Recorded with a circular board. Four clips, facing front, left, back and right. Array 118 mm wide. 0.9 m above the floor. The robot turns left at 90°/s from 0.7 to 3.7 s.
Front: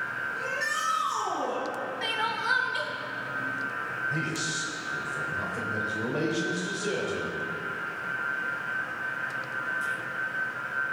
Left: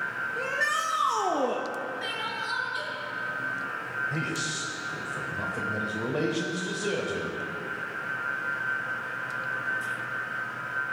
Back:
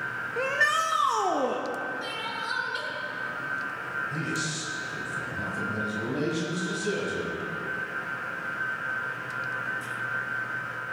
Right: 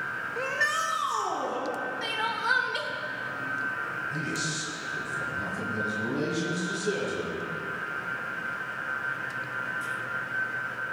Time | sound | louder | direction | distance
0.4 | a shout | right 1 dB, back 8 dB | 165° right | 0.9 m
2.0 | crying | right 4 dB, front 4 dB | 15° right | 1.2 m
4.1 | a man speaking | left 1 dB, even | 55° left | 4 m